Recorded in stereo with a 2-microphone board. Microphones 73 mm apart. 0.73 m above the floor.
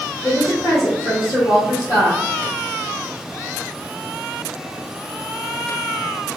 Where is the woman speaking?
45° left (ahead or behind), 0.8 m.